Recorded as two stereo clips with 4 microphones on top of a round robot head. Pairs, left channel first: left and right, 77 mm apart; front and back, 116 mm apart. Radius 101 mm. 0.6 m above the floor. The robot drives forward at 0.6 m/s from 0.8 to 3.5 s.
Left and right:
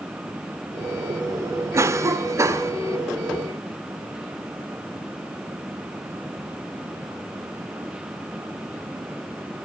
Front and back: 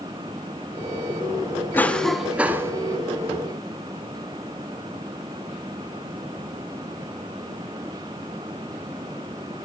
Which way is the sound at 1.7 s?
65° right.